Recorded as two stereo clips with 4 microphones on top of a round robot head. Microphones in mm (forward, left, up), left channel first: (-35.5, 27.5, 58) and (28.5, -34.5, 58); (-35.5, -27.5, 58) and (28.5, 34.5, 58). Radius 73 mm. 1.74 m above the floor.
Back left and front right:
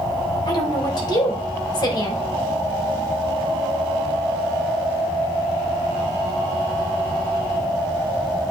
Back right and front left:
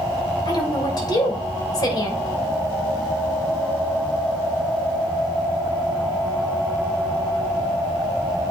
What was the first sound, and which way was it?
A woman speaking, straight behind.